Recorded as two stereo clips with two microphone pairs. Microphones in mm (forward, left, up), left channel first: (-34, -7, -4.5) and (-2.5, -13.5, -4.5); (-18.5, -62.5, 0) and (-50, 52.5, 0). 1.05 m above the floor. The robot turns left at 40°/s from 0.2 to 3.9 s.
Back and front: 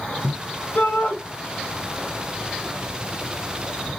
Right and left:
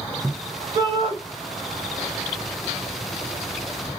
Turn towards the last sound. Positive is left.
turn(degrees=35)